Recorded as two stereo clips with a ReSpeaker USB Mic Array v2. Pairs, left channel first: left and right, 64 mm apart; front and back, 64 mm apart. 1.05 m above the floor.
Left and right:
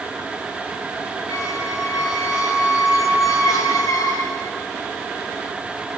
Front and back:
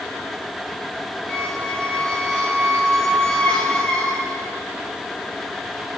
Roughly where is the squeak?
Left.